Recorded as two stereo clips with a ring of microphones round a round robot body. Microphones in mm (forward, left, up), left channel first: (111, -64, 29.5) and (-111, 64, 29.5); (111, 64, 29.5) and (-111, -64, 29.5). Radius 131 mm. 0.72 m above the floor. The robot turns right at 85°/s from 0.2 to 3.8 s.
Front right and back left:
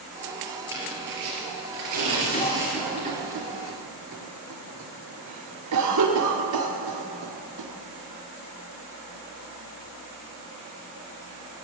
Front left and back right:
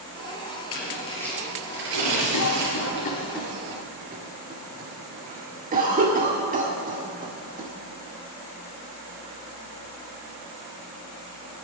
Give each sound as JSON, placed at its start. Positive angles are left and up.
{"t": 0.7, "sound": "tearing paper", "azimuth_deg": 70, "distance_m": 4.5}
{"t": 2.3, "sound": "a cough", "azimuth_deg": 25, "distance_m": 1.7}